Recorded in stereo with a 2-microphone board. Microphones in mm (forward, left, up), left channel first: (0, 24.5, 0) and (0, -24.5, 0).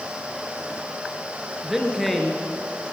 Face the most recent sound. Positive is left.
turn(degrees=20)  # may be behind; listen again after turning